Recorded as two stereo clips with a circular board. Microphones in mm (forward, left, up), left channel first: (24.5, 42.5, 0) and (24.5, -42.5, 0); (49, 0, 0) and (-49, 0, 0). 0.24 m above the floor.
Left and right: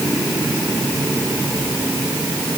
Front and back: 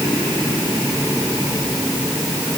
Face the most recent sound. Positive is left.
No sound to turn to.